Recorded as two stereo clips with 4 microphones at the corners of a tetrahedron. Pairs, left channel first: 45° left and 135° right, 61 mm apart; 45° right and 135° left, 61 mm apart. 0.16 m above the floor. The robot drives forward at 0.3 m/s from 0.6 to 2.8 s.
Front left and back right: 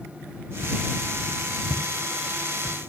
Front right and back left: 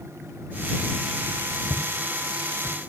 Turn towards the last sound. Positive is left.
turn(degrees=-45)